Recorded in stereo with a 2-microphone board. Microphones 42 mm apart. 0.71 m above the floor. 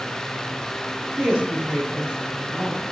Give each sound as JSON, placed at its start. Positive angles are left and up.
{"t": 1.2, "sound": "a woman speaking", "side_deg": -25, "distance_m": 4.5}